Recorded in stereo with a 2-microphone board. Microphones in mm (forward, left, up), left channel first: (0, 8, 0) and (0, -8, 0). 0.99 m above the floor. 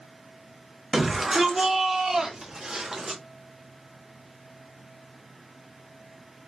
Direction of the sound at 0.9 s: 35° right (ahead or behind).